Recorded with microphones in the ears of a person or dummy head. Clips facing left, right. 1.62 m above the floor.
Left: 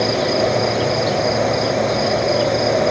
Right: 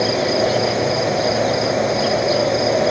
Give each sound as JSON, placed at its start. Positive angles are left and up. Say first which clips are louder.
{"t": 0.0, "sound": "an insect", "louder": "even", "side_deg": 5}